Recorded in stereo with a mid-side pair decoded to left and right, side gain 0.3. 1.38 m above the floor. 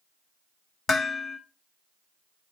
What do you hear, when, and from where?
0.9 s dishes clattering: 60° left, 1.1 m